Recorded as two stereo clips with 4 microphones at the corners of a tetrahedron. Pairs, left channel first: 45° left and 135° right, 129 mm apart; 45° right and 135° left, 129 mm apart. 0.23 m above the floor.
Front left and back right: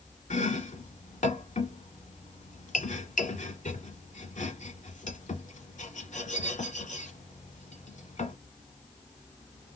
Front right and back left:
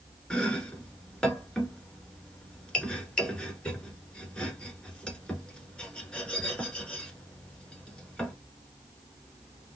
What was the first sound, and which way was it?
Chopping, 35° left.